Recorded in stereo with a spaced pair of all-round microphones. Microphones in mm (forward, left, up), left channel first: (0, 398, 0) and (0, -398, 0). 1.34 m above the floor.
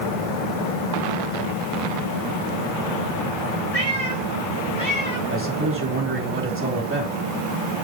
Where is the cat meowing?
45° left (ahead or behind), 4.5 m; by 5.2 s 35° left (ahead or behind), 5 m.